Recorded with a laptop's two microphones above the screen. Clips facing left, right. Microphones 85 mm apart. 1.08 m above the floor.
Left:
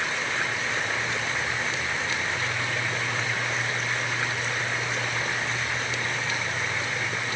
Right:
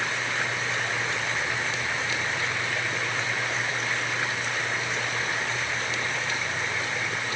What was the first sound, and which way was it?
Only background noise.